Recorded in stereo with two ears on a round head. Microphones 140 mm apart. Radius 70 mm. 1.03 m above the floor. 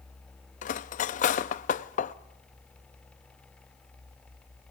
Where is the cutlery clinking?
50° left (ahead or behind), 0.6 m.